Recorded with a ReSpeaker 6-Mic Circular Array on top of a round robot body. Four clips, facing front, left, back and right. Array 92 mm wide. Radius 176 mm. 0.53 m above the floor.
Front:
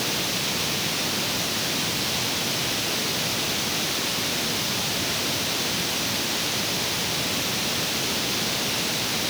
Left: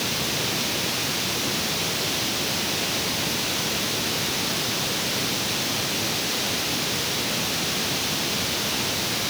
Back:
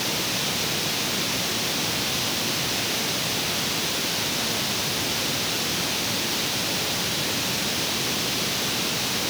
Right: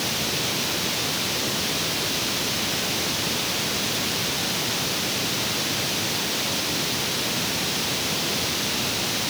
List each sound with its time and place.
Only background noise.